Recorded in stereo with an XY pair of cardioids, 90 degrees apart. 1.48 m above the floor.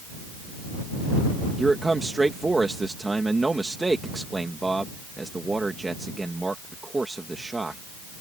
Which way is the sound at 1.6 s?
20° right.